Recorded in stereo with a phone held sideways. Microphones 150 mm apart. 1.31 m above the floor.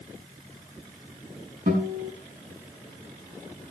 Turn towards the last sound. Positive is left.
turn(degrees=-70)  # may be behind; listen again after turning